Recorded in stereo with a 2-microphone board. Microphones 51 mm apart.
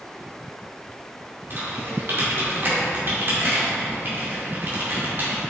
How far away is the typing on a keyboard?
About 1.8 m.